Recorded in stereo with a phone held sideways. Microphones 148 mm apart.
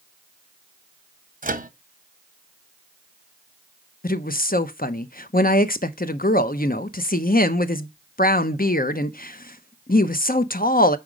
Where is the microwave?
65° right (ahead or behind), 0.7 m.